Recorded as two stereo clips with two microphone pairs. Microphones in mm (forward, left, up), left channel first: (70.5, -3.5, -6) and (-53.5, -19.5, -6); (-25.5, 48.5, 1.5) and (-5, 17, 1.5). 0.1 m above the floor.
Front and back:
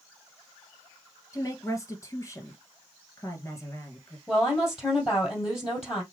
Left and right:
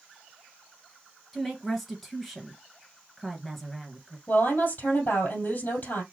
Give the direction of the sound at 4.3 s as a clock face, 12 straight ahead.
9 o'clock.